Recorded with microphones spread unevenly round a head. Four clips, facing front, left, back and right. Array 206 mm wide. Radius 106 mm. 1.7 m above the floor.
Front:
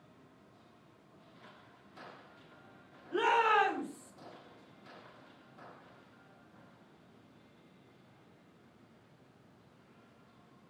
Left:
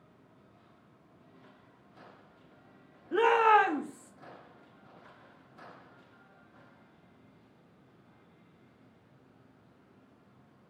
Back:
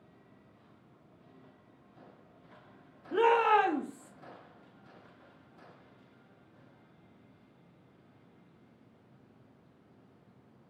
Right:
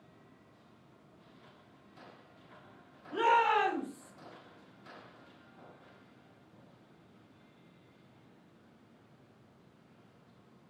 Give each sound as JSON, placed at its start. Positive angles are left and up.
{"t": 3.1, "sound": "a shout", "azimuth_deg": 130, "distance_m": 3.0}